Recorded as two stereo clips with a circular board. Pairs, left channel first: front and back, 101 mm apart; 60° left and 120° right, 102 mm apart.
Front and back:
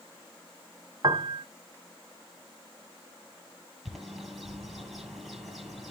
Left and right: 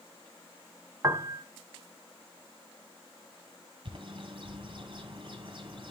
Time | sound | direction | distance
1.0 | a piano | 170° right | 0.7 m
3.9 | a bird | 90° right | 2.5 m